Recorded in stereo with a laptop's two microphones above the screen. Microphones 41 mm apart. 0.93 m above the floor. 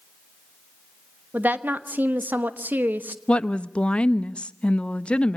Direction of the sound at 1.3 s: 50° right (ahead or behind).